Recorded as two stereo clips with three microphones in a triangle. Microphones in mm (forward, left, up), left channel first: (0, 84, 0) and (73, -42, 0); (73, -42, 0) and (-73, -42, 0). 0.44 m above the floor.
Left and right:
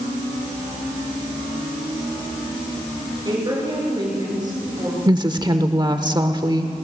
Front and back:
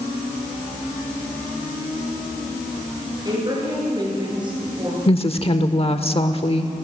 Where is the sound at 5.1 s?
15° right, 1.1 m.